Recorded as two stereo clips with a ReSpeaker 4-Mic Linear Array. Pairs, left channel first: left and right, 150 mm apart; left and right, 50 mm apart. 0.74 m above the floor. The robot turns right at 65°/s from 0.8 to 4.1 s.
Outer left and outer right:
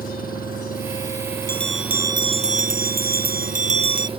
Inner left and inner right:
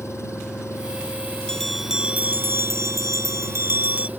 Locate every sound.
0.0 s an engine running: 110° left; by 4.2 s 35° right
1.5 s a bell: 165° left; by 4.1 s 25° right